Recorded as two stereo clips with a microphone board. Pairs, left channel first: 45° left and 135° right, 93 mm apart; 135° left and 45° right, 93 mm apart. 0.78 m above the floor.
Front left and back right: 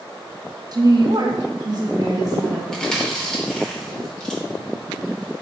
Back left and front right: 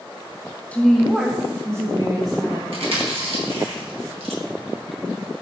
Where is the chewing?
35° right, 1.0 m.